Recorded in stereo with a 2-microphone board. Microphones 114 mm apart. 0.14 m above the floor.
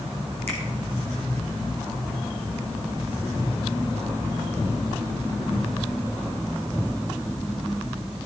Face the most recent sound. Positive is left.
turn(degrees=-70)  # may be behind; listen again after turning